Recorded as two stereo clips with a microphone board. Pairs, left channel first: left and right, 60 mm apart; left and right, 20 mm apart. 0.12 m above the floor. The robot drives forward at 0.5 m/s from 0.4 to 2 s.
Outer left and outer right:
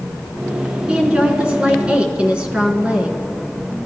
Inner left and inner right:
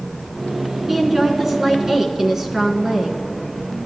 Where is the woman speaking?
20° right (ahead or behind), 1.2 m.